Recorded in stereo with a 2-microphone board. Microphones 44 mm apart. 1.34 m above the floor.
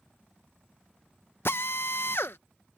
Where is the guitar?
I don't hear a guitar.